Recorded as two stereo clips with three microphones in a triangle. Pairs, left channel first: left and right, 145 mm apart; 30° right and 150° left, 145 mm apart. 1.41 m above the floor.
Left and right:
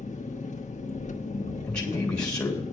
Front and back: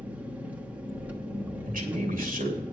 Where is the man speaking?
175° left, 3 m.